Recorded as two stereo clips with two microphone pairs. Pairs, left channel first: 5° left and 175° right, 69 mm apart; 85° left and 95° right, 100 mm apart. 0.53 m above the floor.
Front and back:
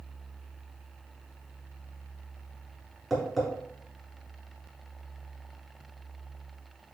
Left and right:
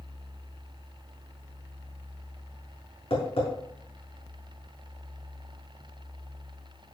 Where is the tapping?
95° left, 5.5 m.